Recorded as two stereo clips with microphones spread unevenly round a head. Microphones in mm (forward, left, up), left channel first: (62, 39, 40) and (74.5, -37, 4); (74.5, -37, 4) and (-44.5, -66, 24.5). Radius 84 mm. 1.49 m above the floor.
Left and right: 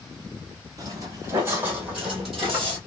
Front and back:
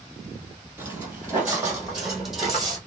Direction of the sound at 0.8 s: 150° right.